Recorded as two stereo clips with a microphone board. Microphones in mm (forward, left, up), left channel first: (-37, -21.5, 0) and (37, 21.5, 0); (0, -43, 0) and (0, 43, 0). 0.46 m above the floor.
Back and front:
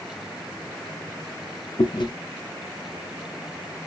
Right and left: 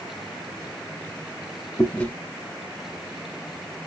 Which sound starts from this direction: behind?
Chewing, at 1.8 s.